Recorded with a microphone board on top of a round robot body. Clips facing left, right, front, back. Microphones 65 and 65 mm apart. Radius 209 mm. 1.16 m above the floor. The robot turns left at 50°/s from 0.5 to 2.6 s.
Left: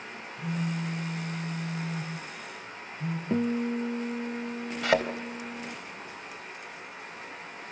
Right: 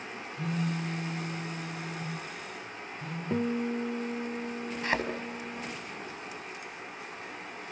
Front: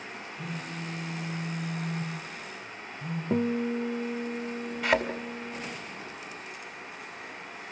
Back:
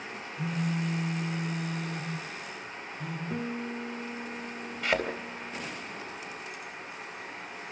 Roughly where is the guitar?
Ahead.